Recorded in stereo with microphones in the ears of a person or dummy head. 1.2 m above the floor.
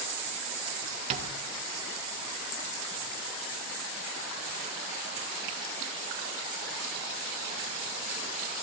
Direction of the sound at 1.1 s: 40° right (ahead or behind).